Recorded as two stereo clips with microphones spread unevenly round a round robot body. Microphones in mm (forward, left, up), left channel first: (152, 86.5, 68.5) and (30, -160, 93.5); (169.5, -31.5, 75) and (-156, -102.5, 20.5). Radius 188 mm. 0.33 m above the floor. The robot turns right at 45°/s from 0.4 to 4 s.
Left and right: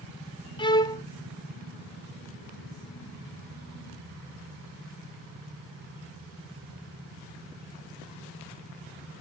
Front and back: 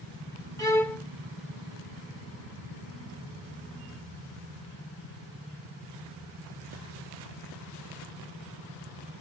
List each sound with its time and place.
0.6 s a violin: 100° left, 0.6 m; by 1.0 s 120° left, 0.6 m